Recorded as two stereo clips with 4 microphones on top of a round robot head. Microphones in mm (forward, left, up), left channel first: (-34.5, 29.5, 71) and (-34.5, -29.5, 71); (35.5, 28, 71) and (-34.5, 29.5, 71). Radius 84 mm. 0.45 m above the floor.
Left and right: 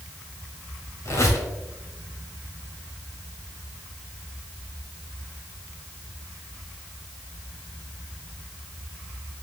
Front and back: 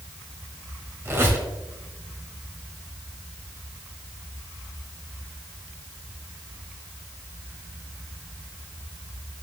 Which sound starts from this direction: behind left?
A squeak, at 1.1 s.